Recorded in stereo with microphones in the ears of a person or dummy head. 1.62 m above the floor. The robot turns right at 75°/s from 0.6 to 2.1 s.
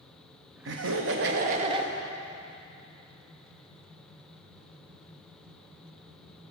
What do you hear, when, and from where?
0.7 s laughter: 110° right, 0.9 m; by 1.9 s 15° right, 0.9 m